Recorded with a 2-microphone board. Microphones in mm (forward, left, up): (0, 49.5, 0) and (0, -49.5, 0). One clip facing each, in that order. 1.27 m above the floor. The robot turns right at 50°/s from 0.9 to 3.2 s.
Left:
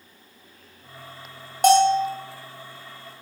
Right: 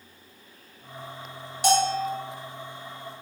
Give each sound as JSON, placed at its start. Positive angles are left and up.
{"t": 1.6, "sound": "a bell", "side_deg": 50, "distance_m": 0.8}